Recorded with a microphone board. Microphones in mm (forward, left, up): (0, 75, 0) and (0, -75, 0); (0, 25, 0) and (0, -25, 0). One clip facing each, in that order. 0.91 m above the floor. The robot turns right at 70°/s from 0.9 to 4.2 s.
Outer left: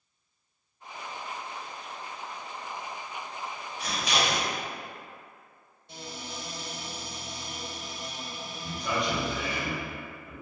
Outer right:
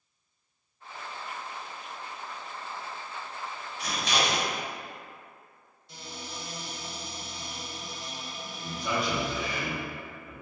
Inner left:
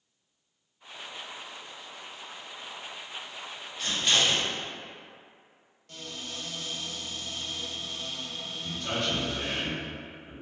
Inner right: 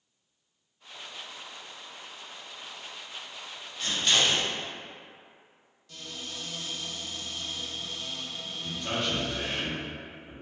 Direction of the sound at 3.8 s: 15° right (ahead or behind).